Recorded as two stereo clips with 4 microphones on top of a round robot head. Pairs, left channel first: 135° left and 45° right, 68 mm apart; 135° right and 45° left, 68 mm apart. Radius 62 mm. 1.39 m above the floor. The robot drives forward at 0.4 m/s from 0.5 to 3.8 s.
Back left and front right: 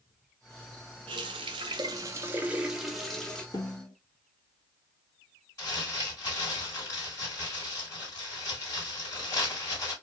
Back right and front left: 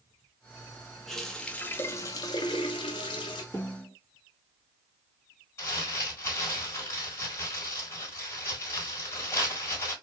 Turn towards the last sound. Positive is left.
turn(degrees=170)